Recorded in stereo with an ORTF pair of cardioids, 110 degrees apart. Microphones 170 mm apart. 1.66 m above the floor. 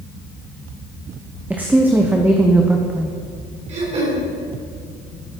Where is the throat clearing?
40° right, 4.5 m.